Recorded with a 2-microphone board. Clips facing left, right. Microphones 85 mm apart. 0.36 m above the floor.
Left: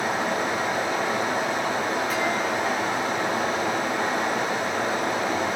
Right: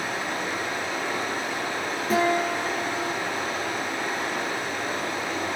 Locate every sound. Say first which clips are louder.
0.0 s running water: left 4 dB; 80° left, 9.5 m
2.1 s a guitar: right 2 dB; 35° right (ahead or behind), 9.5 m